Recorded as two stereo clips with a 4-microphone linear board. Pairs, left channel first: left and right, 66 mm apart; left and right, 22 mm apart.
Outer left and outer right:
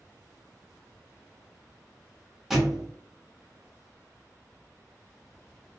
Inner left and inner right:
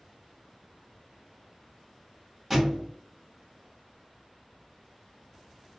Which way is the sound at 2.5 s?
Centre (ahead or behind).